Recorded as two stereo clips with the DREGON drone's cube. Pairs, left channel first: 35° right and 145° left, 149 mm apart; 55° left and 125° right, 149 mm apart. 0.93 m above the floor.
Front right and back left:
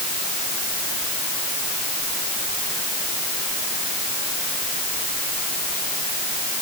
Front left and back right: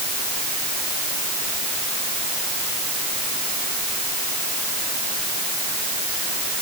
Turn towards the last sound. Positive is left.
No sound to turn to.